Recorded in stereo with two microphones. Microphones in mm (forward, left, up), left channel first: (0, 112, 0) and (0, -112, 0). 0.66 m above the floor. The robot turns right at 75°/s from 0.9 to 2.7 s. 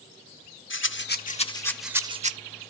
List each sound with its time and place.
0.7 s a rattle: 110° left, 0.6 m; by 2.3 s 140° right, 0.6 m